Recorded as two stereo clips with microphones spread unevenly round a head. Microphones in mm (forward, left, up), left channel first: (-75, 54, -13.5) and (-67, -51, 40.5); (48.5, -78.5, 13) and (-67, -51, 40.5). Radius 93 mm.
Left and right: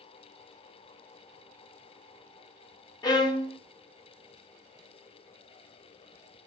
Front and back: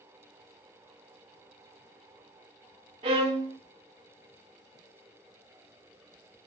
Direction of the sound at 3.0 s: 110° left.